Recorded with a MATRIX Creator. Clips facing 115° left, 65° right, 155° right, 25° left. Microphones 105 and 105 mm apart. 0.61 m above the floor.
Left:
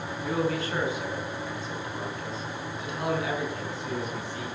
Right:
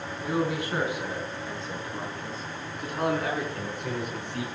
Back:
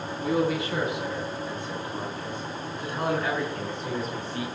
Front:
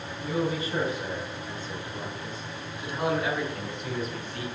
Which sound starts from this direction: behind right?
A man speaking, at 0.2 s.